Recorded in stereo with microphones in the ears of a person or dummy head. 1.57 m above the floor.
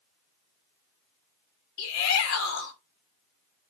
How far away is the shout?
About 3 m.